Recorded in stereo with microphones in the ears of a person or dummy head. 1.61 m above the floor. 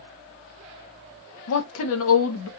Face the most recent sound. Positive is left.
turn(degrees=80)